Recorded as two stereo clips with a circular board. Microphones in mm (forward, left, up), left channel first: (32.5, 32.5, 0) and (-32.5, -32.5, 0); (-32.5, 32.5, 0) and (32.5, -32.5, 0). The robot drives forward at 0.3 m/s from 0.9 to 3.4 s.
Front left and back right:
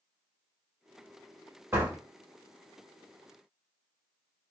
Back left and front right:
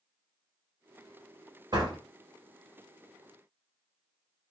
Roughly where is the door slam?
Right.